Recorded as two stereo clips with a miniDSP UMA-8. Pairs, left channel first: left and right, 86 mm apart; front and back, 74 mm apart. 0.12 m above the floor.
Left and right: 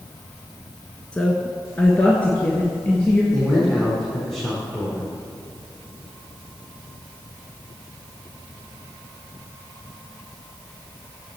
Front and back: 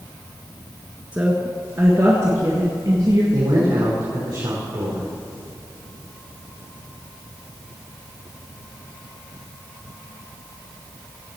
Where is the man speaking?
175° left, 4.5 m.